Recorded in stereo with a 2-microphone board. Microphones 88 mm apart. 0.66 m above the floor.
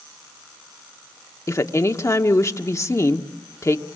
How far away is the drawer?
No drawer in this recording.